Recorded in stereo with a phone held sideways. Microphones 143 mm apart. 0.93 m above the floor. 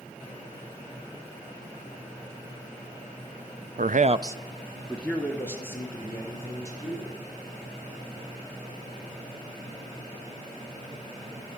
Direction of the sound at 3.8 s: 70° right (ahead or behind).